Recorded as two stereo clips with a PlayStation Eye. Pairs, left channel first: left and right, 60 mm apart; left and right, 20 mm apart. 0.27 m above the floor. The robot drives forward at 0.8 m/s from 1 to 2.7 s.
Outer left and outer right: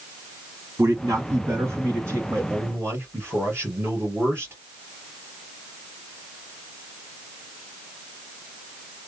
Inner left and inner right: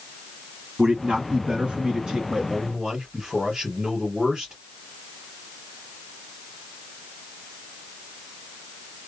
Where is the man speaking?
55° right (ahead or behind), 2 m; by 4.5 s 40° right (ahead or behind), 2.5 m.